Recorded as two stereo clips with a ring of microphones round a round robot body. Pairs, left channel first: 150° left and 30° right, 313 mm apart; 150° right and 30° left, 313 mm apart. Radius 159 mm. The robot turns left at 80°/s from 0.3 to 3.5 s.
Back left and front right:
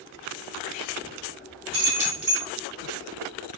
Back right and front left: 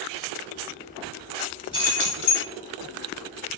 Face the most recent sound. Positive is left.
turn(degrees=140)